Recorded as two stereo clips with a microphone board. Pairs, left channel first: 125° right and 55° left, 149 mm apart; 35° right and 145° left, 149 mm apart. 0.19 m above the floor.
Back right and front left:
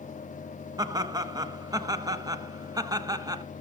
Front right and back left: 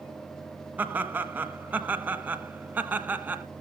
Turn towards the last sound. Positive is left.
turn(degrees=80)